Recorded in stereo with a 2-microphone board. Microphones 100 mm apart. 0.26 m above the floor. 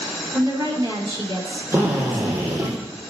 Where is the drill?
25° right (ahead or behind), 4 m.